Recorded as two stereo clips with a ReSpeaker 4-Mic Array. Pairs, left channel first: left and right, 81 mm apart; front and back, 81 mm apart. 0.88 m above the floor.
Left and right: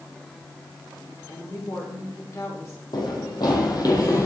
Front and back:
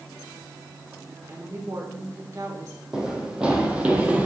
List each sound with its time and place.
1.3 s a woman speaking: 130° left, 2.5 m; by 2.8 s 140° left, 1.9 m
2.9 s running footsteps: 100° left, 1.9 m; by 4.3 s 115° left, 1.4 m